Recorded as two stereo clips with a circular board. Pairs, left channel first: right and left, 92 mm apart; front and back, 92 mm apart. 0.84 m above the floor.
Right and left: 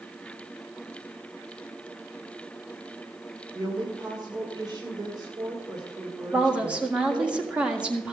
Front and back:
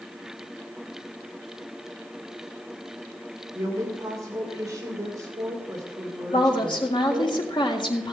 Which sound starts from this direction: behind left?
A woman speaking, at 3.5 s.